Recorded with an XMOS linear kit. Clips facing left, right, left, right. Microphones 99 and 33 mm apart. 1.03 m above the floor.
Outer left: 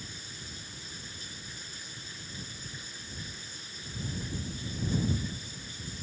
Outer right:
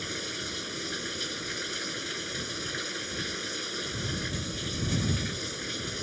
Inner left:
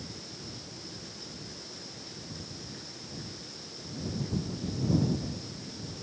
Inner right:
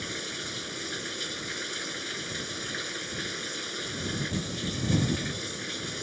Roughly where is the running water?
Right.